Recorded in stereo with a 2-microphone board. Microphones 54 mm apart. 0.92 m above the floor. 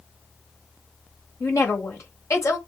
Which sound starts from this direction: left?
A woman speaking, at 1.4 s.